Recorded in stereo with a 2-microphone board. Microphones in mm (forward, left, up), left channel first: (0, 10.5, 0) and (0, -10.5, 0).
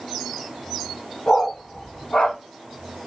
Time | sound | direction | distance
1.3 | a dog barking | 60° left (ahead or behind) | 5 m